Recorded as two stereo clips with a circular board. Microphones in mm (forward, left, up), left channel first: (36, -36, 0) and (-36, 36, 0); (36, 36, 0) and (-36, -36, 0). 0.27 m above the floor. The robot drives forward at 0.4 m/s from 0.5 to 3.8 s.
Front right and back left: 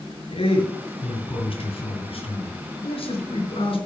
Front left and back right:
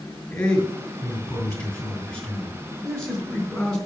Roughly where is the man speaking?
Ahead right.